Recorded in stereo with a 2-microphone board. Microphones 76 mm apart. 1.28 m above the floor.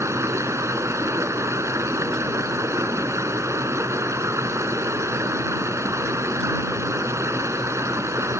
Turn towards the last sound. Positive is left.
turn(degrees=-40)  # may be behind; listen again after turning